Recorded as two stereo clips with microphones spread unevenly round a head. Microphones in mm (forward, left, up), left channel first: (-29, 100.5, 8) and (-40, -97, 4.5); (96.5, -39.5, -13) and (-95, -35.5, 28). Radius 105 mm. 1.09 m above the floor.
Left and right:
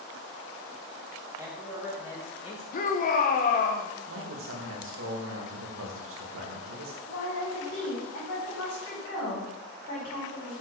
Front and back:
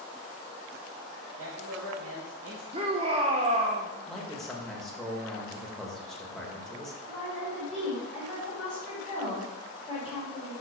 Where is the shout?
115° left, 0.9 m.